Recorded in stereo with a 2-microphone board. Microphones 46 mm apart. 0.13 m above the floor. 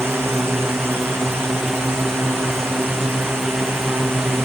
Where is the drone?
70° right (ahead or behind); by 4.5 s 65° right (ahead or behind).